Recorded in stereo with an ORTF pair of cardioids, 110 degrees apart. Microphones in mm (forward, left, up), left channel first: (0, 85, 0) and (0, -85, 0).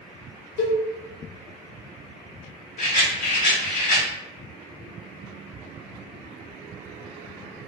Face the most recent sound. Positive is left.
turn(degrees=55)